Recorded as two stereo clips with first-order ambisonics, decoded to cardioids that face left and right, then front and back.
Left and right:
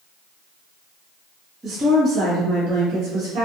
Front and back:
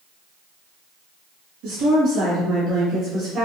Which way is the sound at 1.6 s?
165° right.